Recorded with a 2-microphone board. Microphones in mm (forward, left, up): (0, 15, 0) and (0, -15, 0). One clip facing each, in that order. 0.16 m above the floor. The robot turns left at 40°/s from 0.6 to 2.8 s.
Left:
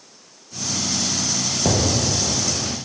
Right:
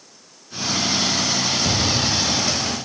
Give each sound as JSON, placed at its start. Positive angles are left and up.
{"t": 1.6, "sound": "an explosion", "azimuth_deg": 90, "distance_m": 1.9}